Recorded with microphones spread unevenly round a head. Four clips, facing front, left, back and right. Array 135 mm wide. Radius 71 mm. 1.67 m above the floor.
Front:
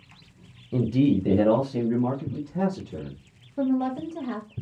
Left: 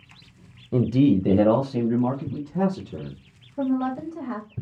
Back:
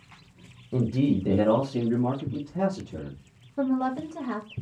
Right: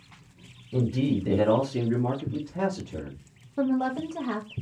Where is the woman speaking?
50° right, 0.7 m.